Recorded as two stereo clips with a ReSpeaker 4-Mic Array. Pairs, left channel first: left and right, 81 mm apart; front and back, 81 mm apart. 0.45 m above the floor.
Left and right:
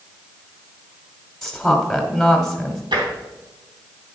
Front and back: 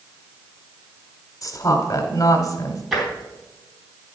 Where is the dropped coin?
I don't hear a dropped coin.